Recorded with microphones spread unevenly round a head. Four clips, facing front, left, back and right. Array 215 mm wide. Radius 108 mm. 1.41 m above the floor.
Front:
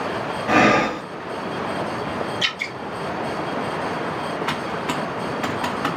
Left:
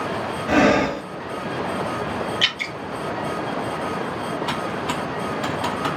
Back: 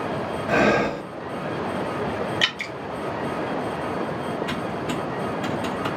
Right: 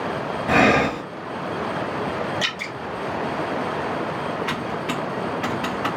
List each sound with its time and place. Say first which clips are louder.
0.5 s breathing: left 1 dB, front 3 dB; 35° right, 1.8 m
2.4 s dripping: even, even; 175° left, 0.5 m
4.5 s typing on a keyboard: left 1 dB, front 2 dB; straight ahead, 1.2 m